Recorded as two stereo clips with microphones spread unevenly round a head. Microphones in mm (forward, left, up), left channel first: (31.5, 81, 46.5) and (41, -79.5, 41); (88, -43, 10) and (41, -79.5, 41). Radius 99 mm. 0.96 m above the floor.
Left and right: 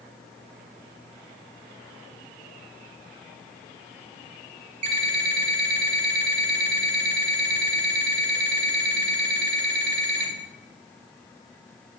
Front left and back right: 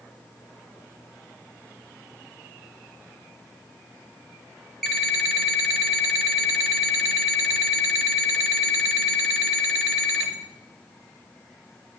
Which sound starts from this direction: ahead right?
An alarm clock, at 4.8 s.